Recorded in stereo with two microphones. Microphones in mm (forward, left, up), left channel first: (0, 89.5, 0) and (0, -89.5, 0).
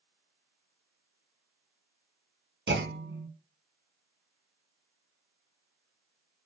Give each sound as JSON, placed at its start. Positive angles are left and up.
{"t": 2.7, "sound": "a clunk", "side_deg": -70, "distance_m": 0.9}